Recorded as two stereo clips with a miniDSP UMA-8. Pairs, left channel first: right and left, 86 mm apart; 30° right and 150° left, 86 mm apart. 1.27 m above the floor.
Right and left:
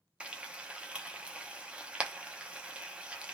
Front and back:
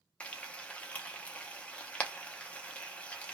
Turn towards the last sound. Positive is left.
turn(degrees=30)